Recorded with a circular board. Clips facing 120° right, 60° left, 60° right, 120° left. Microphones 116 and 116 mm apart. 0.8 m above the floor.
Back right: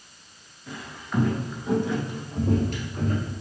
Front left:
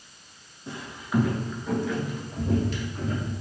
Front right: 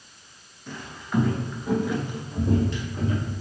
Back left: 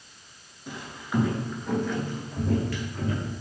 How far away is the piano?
No piano in this recording.